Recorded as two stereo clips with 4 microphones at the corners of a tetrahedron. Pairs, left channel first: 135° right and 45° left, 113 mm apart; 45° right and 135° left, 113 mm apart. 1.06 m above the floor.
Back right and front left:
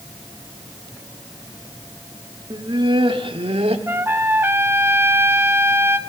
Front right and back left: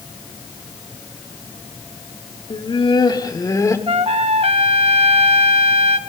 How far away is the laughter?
About 1.9 m.